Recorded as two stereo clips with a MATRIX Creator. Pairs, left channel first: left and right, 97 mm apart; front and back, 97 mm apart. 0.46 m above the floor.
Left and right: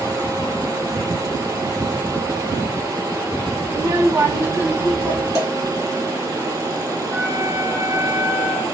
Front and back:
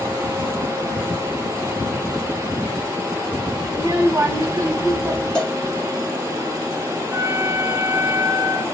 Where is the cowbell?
75° right, 1.7 m.